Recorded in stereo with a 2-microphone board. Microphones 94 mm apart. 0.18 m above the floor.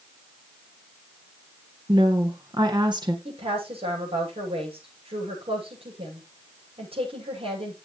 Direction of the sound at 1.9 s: 50° right (ahead or behind).